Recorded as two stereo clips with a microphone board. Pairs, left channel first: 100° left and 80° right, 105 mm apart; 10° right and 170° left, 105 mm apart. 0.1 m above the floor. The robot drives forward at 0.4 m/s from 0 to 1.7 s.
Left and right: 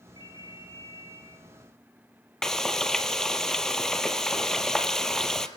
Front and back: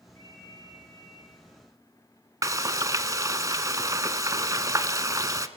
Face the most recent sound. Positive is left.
turn(degrees=180)